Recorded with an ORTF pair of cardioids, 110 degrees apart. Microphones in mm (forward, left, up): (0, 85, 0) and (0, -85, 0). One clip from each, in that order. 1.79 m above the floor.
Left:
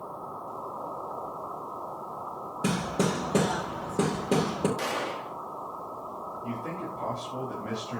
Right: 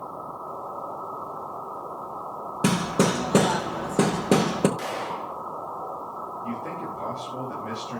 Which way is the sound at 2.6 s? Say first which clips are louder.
Right 5 dB; 35° right.